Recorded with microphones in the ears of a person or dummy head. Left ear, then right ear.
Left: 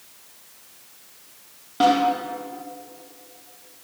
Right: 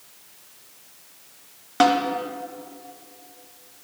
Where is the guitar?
No guitar in this recording.